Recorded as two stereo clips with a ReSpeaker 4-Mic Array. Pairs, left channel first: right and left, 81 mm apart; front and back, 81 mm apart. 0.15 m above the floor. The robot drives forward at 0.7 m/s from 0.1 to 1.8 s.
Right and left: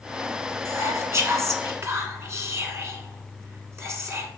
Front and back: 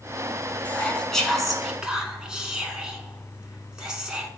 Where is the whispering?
65° left, 1.8 m; by 4.3 s 105° left, 1.7 m.